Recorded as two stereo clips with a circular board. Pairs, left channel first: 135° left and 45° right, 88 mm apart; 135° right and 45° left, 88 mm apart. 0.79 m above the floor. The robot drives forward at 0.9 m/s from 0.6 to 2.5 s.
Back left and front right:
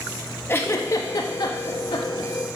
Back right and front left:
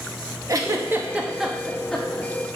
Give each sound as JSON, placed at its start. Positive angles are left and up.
{"t": 0.5, "sound": "a giggle", "azimuth_deg": 80, "distance_m": 1.0}